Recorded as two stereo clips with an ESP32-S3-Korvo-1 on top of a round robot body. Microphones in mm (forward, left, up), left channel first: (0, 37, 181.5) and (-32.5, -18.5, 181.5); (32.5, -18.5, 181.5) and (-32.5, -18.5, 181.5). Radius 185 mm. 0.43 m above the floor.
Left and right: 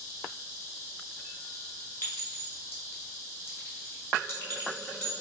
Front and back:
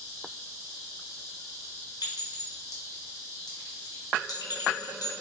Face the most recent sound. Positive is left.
turn(degrees=10)